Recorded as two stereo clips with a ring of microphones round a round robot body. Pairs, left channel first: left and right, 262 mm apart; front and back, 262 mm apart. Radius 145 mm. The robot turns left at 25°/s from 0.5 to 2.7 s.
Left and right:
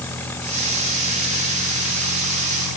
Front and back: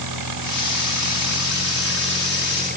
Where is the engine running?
175° left; by 2.8 s 120° left.